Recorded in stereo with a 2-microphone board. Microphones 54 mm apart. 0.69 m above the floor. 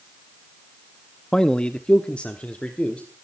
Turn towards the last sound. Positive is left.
turn(degrees=25)  # may be behind; listen again after turning